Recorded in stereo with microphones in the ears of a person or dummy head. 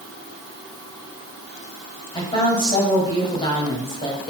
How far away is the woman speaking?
About 2.0 m.